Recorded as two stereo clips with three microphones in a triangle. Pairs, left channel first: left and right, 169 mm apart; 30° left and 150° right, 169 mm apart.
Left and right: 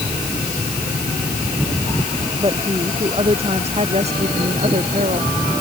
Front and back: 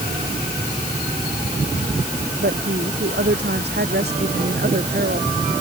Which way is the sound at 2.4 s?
150° right.